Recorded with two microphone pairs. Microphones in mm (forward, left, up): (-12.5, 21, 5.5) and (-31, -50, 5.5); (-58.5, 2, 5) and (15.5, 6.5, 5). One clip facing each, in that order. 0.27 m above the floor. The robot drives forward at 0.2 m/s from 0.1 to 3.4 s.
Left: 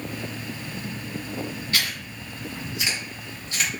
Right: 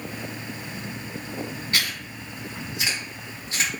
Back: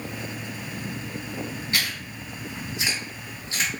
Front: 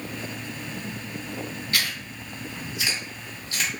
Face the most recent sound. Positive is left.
turn(degrees=-140)